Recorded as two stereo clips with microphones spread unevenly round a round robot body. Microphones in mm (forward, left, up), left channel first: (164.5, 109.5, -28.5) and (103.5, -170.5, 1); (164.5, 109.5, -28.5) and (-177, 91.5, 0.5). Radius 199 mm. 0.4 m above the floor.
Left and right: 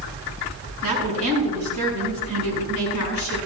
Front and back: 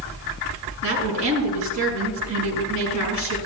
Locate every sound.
0.8 s a woman speaking: 135° right, 5 m